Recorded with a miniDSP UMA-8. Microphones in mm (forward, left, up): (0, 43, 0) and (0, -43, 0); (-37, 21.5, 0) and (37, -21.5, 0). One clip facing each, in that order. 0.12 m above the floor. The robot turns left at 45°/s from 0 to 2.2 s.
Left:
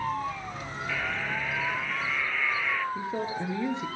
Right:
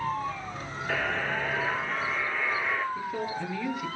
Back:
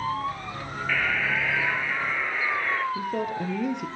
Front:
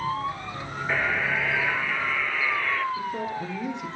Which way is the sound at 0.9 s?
90° right.